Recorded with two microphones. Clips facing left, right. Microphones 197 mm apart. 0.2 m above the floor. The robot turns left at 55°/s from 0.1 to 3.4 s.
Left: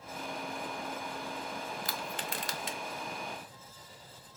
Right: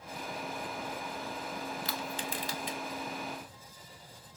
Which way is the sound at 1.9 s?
45° left (ahead or behind).